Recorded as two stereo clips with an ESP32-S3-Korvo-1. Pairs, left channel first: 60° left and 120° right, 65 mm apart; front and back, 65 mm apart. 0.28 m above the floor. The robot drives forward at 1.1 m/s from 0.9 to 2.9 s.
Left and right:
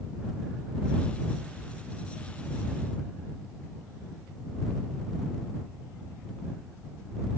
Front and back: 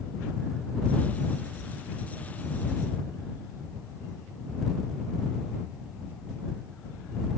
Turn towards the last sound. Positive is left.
No sound to turn to.